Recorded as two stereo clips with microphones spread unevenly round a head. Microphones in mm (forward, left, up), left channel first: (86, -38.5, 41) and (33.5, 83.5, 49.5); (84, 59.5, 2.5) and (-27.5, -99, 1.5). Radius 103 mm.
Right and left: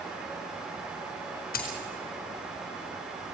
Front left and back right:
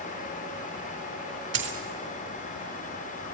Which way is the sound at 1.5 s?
100° right.